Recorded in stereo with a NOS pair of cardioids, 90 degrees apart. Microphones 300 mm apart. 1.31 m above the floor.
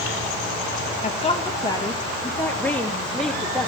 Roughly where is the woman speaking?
Ahead left.